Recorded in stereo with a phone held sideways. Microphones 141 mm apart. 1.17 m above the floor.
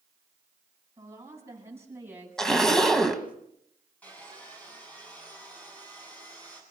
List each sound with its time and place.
1.0 s a woman speaking: 20° right (ahead or behind), 8.5 m; by 3.3 s 10° right (ahead or behind), 8 m
2.4 s a zipper: 5° left (ahead or behind), 2.0 m
4.0 s sawing: 10° left (ahead or behind), 8.5 m